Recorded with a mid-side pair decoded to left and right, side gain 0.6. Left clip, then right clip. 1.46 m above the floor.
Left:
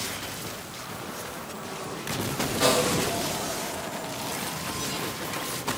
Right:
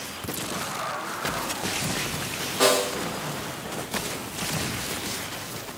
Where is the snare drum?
60° right, 1.3 m.